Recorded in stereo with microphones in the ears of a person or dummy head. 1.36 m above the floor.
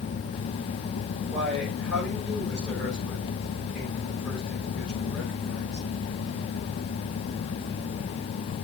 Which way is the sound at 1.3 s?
5° right (ahead or behind).